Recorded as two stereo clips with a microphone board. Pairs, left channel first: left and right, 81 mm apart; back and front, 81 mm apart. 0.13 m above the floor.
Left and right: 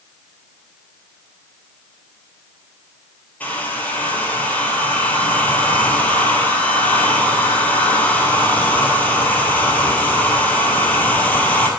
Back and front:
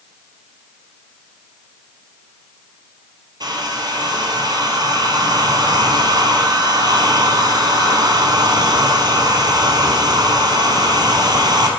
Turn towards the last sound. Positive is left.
turn(degrees=25)